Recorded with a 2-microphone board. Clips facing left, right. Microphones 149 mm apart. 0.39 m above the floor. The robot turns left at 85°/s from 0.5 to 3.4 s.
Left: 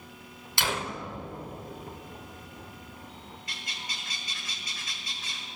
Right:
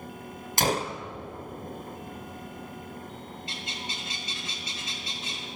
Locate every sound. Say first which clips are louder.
0.6 s a gunshot: right 5 dB; 110° right, 0.5 m; by 1.0 s 140° right, 0.5 m
3.5 s a bird: right 4 dB; 25° right (ahead or behind), 1.3 m